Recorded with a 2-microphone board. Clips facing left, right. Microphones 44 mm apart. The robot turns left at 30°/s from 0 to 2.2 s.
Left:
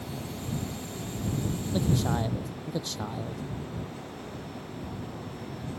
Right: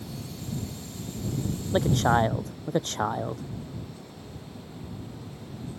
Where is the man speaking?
60° right (ahead or behind); by 3.5 s 45° right (ahead or behind).